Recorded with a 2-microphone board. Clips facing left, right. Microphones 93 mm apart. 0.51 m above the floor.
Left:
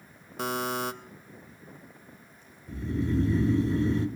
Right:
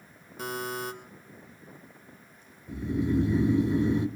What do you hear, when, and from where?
0.4 s a buzzer: 90° left, 0.6 m
2.7 s snoring: 15° right (ahead or behind), 0.8 m